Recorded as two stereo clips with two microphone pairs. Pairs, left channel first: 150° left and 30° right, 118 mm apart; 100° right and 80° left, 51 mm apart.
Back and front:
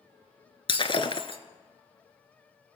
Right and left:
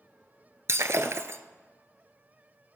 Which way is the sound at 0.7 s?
110° left.